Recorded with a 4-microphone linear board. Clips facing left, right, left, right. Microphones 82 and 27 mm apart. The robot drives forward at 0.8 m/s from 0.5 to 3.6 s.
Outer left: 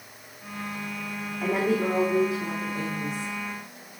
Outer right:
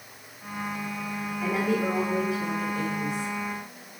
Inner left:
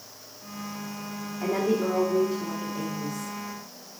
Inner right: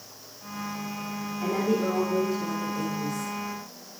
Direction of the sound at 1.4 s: 40° left (ahead or behind).